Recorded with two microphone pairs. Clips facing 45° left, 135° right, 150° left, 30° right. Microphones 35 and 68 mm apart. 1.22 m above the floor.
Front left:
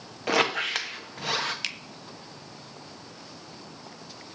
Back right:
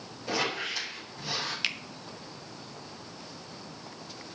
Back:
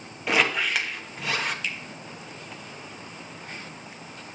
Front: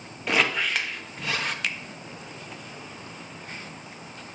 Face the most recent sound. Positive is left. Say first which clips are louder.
# back right 2 dB, front 2 dB
turn(degrees=-50)